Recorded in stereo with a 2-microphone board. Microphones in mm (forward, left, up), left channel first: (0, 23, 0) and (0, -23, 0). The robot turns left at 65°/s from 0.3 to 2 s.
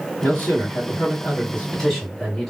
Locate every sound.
0.2 s a man speaking: 110° left, 2.5 m; by 2.5 s straight ahead, 2.5 m